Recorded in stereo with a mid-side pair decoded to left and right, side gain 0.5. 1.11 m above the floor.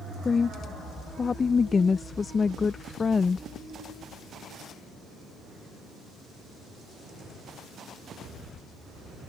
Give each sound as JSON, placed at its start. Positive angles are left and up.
{"t": 0.2, "sound": "a woman speaking", "azimuth_deg": 30}